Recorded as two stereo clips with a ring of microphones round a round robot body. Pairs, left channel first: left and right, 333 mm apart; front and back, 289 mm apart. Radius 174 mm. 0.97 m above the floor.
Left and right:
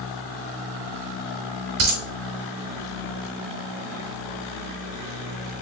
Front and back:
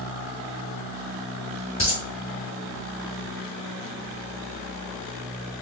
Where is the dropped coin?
100° right, 0.9 m.